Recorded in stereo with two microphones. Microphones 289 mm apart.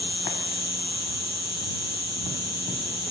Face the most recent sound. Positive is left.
turn(degrees=65)  # may be behind; listen again after turning